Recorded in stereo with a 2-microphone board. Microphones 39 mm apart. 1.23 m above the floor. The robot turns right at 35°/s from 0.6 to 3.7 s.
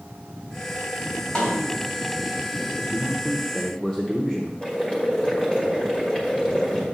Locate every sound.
1.4 s a snare drum: 15° left (ahead or behind), 3 m; by 1.8 s 30° left (ahead or behind), 3 m
2.9 s a man speaking: 10° right (ahead or behind), 0.9 m; by 4.5 s 15° left (ahead or behind), 0.9 m
4.6 s boiling: 20° left (ahead or behind), 1.8 m